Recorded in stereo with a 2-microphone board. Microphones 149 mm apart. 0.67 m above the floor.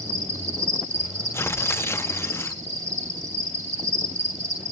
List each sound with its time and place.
0.0 s an insect: 50° right (ahead or behind), 2.5 m
1.3 s tearing paper: 15° left (ahead or behind), 0.6 m